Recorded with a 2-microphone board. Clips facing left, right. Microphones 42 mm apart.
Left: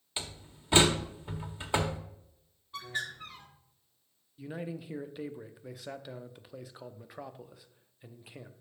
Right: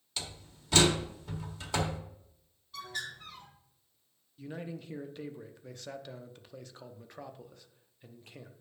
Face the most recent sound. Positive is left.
turn(degrees=10)  # may be behind; listen again after turning